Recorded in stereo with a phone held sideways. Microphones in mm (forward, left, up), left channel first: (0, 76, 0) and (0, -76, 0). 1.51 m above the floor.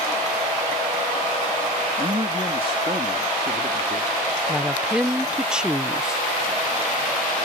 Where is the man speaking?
30° right (ahead or behind); by 4.2 s 50° right (ahead or behind).